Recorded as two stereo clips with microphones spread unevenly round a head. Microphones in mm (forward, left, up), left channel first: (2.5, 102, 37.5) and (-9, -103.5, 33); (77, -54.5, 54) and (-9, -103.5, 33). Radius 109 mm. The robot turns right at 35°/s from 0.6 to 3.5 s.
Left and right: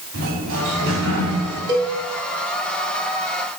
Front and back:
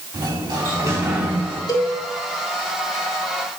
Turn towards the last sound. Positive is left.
turn(degrees=40)